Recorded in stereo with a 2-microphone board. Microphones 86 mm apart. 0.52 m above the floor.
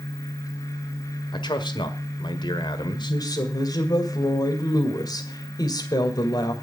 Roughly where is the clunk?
I don't hear a clunk.